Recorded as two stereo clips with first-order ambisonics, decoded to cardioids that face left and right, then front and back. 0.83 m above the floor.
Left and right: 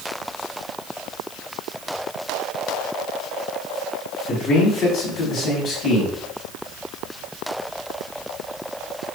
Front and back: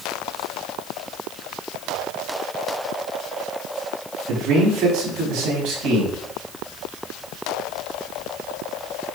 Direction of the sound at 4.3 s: 150° left.